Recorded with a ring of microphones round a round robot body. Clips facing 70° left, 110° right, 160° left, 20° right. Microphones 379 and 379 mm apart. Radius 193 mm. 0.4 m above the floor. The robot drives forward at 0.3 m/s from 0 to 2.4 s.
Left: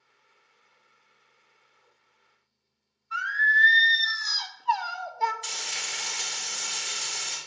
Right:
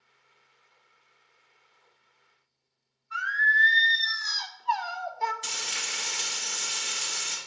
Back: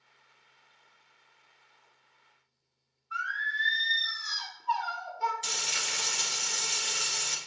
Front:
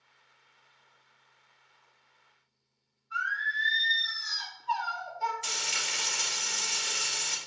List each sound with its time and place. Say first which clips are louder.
3.1 s singing: left 1 dB, front 1 dB; 80° left, 0.6 m
5.4 s frying: right 1 dB, even; 160° right, 2 m